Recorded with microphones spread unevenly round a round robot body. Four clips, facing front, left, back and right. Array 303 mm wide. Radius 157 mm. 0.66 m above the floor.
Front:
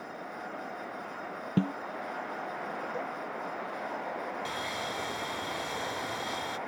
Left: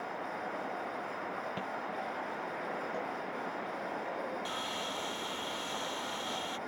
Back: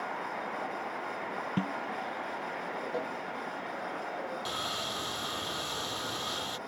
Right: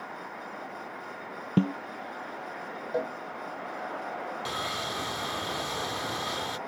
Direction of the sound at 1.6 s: 75° right.